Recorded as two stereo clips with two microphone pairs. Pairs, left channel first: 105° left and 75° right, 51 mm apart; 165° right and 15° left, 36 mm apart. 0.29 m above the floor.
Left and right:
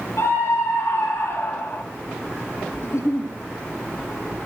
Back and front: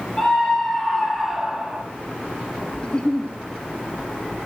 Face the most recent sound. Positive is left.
turn(degrees=130)